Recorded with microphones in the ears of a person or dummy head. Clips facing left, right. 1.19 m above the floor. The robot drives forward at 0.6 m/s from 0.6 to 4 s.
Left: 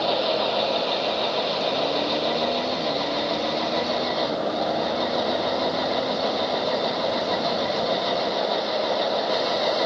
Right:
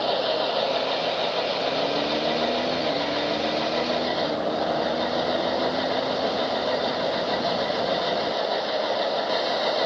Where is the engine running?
10° right (ahead or behind).